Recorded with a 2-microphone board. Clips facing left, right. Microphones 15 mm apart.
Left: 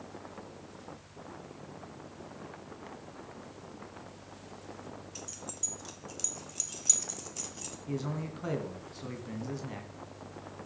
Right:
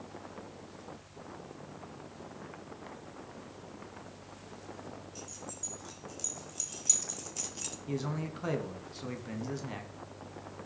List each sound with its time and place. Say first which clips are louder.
5.2 s keys jangling: left 2 dB; 40° left (ahead or behind), 3.5 m; by 7.8 s 15° right (ahead or behind), 1.4 m
7.9 s a man speaking: even; 5° right (ahead or behind), 1.7 m